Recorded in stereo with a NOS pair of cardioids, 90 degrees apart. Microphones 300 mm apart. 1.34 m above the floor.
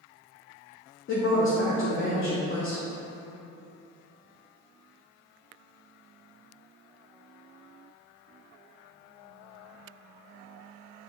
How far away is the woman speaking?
About 0.8 m.